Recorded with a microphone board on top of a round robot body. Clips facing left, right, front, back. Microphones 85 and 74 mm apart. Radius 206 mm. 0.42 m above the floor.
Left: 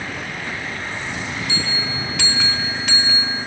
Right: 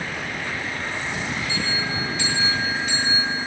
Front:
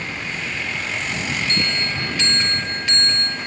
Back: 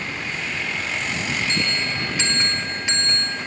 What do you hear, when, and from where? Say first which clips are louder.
1.5 s a bell: even, front 1 dB; 110° left, 1.0 m